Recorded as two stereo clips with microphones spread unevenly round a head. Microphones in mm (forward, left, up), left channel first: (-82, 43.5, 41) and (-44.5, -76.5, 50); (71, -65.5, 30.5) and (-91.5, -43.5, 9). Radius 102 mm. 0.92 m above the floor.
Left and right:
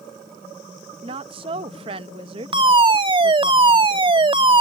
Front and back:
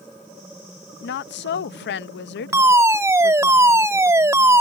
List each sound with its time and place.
1.0 s a woman speaking: 20° right
2.5 s a fire alarm: 115° right